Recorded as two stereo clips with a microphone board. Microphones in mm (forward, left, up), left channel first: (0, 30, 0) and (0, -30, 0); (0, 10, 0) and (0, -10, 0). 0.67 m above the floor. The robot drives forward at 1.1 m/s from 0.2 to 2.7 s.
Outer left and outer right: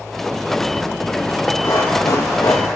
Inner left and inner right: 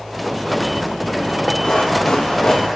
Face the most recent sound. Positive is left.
turn(degrees=85)